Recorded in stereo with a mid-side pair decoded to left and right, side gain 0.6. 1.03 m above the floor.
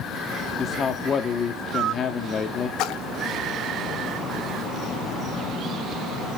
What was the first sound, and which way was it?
A man speaking, 40° left.